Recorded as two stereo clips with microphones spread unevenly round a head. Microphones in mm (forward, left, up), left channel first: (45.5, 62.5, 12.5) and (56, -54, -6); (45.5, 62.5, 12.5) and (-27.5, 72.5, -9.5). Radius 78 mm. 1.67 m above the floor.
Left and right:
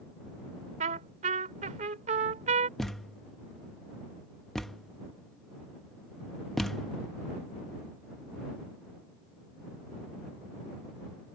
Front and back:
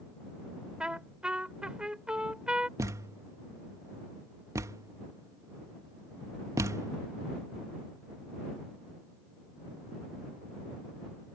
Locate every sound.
0.8 s a trumpet: 95° right
2.8 s a thud: 160° left